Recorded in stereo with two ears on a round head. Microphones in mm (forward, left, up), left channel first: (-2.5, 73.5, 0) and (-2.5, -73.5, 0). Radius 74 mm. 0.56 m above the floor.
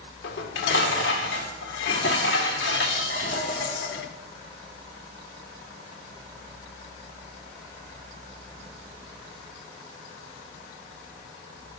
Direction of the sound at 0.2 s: 70° left (ahead or behind).